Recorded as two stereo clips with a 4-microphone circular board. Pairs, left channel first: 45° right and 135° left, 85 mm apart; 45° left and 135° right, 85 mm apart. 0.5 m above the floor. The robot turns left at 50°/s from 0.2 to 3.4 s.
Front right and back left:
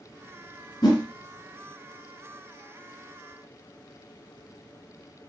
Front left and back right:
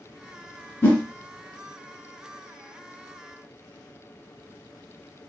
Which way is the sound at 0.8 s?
15° right.